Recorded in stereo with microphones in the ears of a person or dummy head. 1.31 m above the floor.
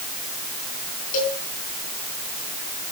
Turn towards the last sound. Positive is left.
turn(degrees=50)  # may be behind; listen again after turning